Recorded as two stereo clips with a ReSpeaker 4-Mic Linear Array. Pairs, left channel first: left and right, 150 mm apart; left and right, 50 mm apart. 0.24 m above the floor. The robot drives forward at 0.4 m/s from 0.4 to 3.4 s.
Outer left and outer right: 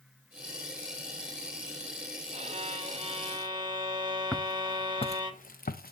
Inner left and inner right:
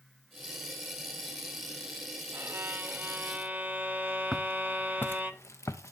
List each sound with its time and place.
2.3 s a violin: 45° right (ahead or behind), 0.7 m; by 5.3 s 35° right (ahead or behind), 0.9 m
4.3 s footsteps: 5° left (ahead or behind), 1.0 m; by 5.9 s 80° left, 1.1 m